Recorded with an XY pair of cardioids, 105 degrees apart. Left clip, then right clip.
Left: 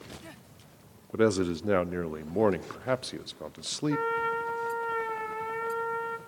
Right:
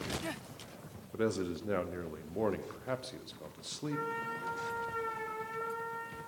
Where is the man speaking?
55° left, 0.9 m.